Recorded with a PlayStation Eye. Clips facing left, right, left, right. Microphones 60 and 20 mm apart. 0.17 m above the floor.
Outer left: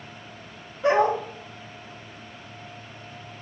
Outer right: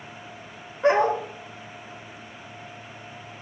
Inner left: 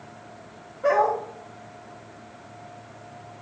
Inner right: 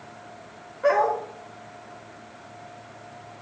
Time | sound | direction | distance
0.8 | a dog barking | 50° right (ahead or behind) | 5.5 m